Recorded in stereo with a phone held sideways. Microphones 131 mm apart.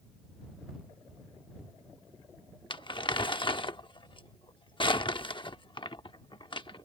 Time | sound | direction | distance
2.7 | crumpling | 40° left (ahead or behind) | ?